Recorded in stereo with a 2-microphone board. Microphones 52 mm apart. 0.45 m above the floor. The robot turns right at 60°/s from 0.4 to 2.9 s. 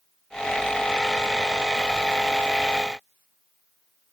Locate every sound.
Only background noise.